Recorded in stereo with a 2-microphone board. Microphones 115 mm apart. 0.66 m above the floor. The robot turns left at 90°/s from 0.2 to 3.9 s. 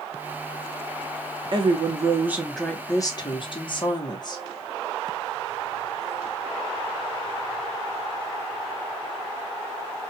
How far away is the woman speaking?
About 1.2 m.